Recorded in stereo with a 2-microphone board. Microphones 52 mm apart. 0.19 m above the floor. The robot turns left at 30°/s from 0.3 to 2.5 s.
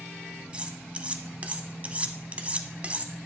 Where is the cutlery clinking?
20° right (ahead or behind), 0.6 m; by 3.1 s 25° right (ahead or behind), 0.6 m.